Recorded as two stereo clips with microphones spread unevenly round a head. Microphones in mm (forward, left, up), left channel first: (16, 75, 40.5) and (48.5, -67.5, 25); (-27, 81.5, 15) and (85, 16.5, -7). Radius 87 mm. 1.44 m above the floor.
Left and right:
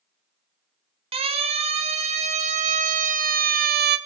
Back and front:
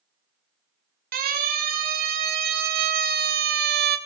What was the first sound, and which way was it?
A siren, 25° right.